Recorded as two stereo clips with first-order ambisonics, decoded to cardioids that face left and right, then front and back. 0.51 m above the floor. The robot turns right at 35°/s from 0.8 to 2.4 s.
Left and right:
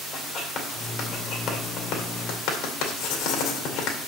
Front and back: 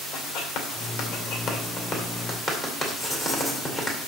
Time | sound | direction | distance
0.1 | writing | 10° left | 2.5 m